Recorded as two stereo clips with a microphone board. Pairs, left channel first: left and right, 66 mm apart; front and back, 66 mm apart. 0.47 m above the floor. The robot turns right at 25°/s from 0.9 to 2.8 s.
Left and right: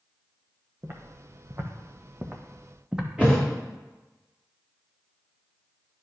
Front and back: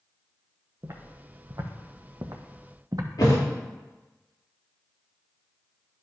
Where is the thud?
15° right, 3 m.